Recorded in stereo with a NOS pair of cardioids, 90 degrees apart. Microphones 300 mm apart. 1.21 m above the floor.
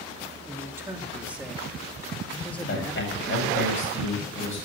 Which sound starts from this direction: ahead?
A man speaking, at 0.5 s.